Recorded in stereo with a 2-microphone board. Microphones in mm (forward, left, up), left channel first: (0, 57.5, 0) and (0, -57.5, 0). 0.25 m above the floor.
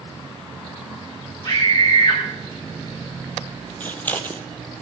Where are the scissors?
15° left (ahead or behind), 1.2 m.